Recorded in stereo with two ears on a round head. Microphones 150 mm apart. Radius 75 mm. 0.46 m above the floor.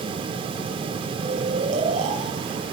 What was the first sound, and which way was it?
Snoring, 45° right (ahead or behind).